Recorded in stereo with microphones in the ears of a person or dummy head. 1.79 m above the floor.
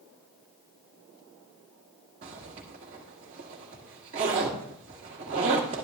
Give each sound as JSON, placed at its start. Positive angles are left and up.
{"t": 2.2, "sound": "a zipper", "side_deg": -20, "distance_m": 1.3}